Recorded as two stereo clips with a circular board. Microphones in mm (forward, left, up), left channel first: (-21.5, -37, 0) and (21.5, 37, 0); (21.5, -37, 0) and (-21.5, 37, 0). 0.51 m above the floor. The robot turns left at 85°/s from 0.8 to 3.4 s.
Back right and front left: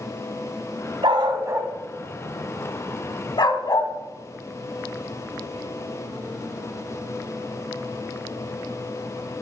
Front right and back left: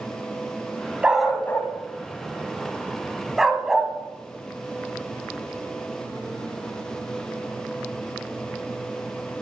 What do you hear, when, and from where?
1.0 s a dog barking: 50° left, 1.0 m; by 3.9 s 155° right, 1.0 m